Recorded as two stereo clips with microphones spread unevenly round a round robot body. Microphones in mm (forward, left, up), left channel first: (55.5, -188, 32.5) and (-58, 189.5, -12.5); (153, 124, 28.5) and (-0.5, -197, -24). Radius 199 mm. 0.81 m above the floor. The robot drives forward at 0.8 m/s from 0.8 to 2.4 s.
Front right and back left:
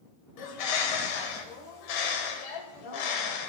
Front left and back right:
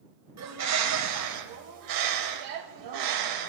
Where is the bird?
70° right, 3.5 m; by 3.5 s 90° right, 3.5 m.